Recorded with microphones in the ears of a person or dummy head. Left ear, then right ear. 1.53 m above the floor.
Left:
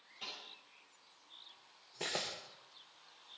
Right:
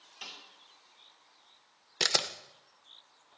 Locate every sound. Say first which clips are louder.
0.2 s a snare drum: right 1 dB; 40° right (ahead or behind), 4.5 m
2.0 s a camera shutter: right 11 dB; 55° right (ahead or behind), 0.6 m